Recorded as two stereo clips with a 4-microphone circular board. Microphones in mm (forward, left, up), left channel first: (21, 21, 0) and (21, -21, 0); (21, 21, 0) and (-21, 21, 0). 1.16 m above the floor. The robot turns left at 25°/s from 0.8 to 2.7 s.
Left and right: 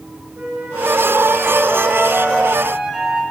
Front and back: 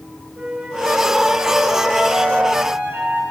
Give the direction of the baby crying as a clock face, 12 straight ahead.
No baby crying in this recording.